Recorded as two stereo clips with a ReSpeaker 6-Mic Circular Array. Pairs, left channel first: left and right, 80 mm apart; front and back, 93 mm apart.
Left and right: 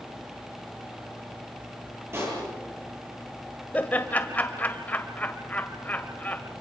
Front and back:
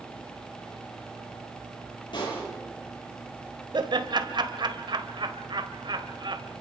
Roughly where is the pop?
Ahead right.